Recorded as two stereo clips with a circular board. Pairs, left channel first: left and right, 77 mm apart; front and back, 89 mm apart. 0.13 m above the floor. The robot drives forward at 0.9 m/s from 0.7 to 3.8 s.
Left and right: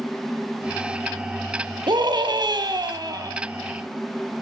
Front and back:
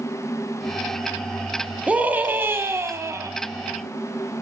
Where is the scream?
105° right, 3.5 m; by 3.3 s 125° right, 4 m.